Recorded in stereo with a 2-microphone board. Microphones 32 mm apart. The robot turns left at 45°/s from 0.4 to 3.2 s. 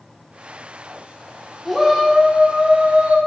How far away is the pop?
No pop in this recording.